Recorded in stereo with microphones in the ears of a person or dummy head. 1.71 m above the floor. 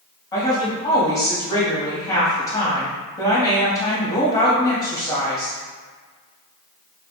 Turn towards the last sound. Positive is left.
turn(degrees=20)  # may be behind; listen again after turning